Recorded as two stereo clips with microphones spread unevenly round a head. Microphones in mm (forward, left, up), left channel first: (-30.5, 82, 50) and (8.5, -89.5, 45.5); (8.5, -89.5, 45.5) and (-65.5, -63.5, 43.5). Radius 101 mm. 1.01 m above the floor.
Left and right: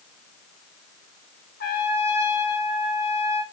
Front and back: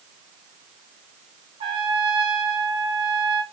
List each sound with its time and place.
1.6 s a trumpet: 140° left, 1.1 m